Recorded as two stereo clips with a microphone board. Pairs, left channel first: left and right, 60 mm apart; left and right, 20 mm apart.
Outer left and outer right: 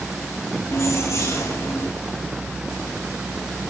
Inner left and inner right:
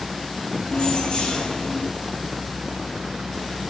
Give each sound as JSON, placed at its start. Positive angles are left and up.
{"t": 0.7, "sound": "keys jangling", "side_deg": 55, "distance_m": 8.5}